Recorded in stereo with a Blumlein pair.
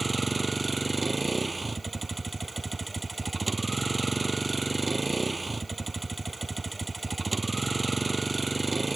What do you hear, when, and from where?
0.0 s a vehicle: 10° right